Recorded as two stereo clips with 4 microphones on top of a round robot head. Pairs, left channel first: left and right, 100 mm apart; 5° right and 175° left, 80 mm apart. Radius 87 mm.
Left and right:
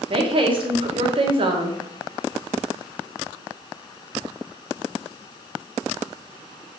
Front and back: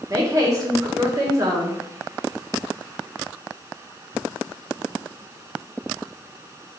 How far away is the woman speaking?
About 0.9 m.